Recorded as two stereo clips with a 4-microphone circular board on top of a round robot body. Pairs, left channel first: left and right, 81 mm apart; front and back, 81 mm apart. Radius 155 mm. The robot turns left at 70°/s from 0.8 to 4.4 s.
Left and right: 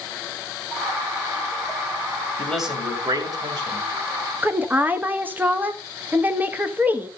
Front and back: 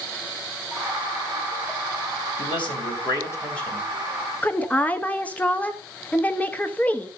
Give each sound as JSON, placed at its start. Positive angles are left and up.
{"t": 2.4, "sound": "a man speaking", "azimuth_deg": 10, "distance_m": 3.0}
{"t": 4.4, "sound": "a woman speaking", "azimuth_deg": -50, "distance_m": 1.0}